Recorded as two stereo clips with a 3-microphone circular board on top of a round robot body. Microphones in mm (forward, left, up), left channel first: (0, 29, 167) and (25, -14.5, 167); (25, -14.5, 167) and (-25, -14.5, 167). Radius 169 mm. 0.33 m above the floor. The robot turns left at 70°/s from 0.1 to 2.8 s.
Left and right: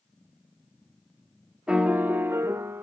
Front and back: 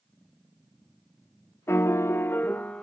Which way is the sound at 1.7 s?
10° left.